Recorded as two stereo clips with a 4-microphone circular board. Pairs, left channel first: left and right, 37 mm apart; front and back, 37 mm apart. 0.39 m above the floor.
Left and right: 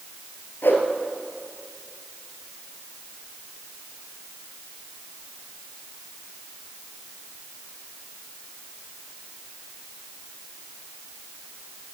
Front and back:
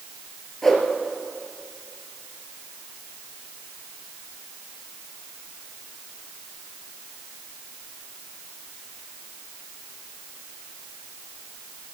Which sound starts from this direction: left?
A whoosh, at 0.6 s.